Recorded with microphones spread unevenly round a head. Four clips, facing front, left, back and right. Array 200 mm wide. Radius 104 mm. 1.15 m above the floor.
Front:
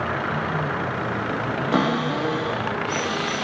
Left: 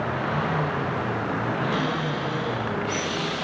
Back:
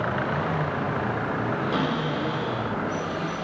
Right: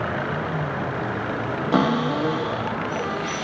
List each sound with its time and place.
1.7 s a cupboard door: 60° right, 2.5 m